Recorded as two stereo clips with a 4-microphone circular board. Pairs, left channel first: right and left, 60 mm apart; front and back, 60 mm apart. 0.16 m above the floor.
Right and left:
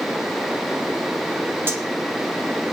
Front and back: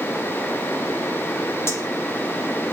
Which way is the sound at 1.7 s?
40° left.